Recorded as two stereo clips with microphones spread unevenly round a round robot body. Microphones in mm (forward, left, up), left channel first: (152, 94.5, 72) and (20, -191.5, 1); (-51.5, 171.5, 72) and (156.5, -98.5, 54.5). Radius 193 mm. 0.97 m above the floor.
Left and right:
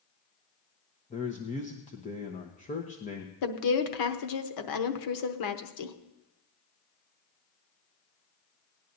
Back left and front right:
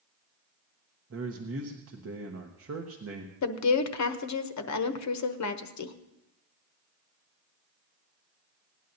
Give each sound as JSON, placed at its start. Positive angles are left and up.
{"t": 1.1, "sound": "a man speaking", "azimuth_deg": -5, "distance_m": 1.2}
{"t": 3.4, "sound": "a woman speaking", "azimuth_deg": 90, "distance_m": 1.0}